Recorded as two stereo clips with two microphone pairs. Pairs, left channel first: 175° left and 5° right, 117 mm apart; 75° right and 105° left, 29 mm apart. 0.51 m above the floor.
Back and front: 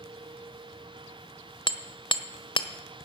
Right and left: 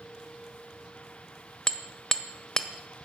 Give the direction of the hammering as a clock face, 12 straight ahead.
5 o'clock.